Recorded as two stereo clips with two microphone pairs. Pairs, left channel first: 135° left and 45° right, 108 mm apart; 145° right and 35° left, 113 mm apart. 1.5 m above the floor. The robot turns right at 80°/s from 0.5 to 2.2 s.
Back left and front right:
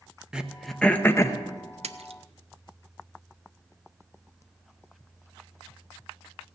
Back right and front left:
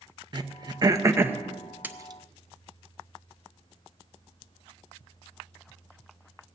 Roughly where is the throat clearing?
Ahead left.